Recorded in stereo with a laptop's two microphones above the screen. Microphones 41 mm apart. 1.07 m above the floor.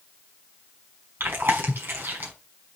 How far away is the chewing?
About 5.5 m.